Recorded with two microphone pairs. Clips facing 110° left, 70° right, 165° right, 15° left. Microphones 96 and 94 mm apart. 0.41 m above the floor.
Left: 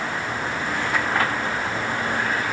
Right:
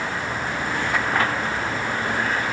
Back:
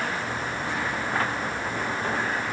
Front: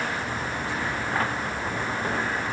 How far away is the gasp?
I don't hear a gasp.